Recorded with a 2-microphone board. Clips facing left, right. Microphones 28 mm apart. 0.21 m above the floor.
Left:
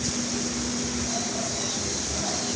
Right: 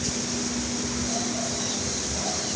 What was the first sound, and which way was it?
Only background noise.